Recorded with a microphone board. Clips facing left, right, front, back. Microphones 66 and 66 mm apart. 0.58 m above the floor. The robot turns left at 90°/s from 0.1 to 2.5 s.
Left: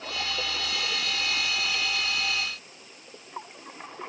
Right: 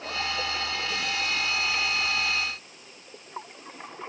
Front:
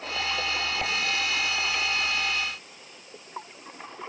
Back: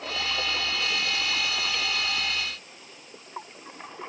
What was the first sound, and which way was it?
Only background noise.